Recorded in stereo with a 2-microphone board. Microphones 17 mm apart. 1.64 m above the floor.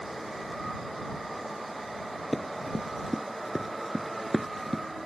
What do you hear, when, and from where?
2.3 s running footsteps: centre (ahead or behind)